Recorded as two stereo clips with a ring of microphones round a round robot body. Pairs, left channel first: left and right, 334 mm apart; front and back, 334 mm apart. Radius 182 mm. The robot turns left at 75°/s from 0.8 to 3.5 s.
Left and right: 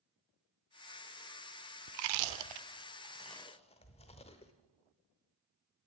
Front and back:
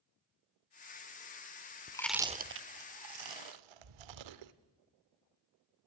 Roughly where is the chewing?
Right.